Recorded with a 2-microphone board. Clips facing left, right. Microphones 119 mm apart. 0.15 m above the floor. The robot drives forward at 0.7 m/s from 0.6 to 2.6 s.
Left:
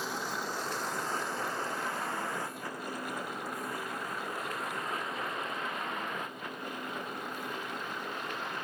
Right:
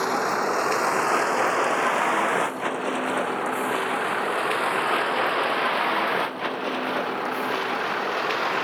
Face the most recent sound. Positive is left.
turn(degrees=-80)